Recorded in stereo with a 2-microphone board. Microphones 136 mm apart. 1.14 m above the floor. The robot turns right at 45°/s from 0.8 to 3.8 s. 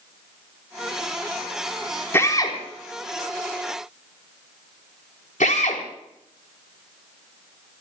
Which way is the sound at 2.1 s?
20° left (ahead or behind).